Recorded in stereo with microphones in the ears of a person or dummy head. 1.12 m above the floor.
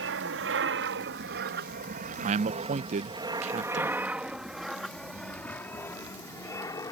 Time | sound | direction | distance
0.0 | an aircraft | 60° right (ahead or behind) | ?
2.2 | a man speaking | 40° right (ahead or behind) | ?